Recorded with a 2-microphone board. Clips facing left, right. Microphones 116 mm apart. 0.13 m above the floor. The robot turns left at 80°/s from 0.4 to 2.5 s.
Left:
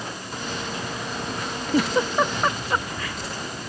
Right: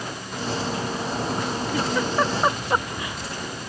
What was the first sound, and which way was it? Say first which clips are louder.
A giggle: left 3 dB; 45° left (ahead or behind).